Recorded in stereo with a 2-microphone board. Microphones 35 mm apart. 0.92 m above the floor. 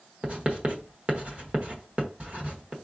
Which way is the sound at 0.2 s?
35° right (ahead or behind).